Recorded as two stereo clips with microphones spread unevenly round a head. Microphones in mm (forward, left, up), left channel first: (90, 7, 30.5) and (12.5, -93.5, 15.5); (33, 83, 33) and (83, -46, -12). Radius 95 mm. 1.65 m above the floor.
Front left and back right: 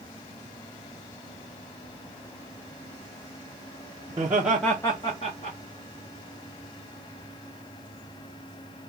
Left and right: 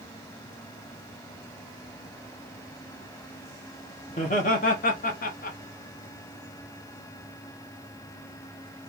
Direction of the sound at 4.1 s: 165° left.